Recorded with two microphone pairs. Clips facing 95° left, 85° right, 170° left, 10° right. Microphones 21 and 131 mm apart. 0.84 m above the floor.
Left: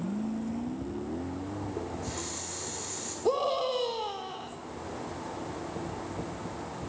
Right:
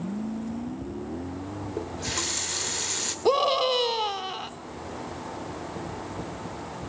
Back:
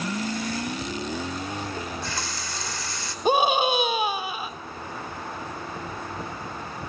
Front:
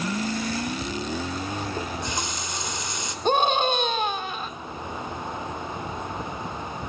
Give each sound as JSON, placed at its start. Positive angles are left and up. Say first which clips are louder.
{"t": 1.8, "sound": "a running tap", "louder": "right 5 dB, front 2 dB", "azimuth_deg": -85, "distance_m": 2.0}
{"t": 3.2, "sound": "a scream", "louder": "right 5 dB, back 1 dB", "azimuth_deg": -110, "distance_m": 2.5}